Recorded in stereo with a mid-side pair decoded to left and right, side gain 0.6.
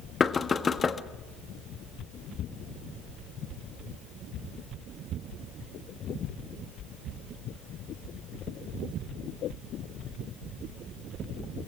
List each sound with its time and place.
0.2 s knocking: 30° left, 1.2 m